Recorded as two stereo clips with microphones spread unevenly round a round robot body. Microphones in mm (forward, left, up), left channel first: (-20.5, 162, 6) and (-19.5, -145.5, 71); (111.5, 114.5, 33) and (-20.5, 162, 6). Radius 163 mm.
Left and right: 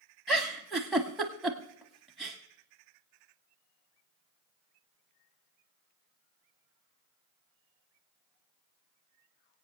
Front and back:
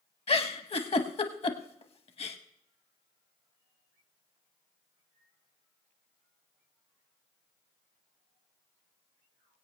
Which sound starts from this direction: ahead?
A giggle, at 0.3 s.